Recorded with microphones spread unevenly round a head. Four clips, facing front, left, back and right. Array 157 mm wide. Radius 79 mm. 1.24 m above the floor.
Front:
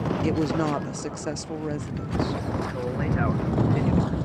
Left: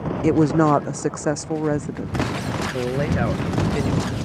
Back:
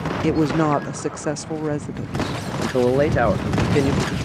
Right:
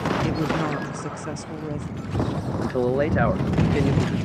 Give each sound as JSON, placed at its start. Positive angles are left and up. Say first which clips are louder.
{"t": 0.2, "sound": "a woman speaking", "louder": "left 8 dB, back 8 dB", "azimuth_deg": 115}
{"t": 2.6, "sound": "a man speaking", "louder": "right 4 dB, back 11 dB", "azimuth_deg": -170}